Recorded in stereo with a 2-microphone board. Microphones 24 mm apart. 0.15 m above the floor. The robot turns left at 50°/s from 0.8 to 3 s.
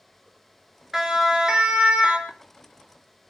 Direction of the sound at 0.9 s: 15° right (ahead or behind).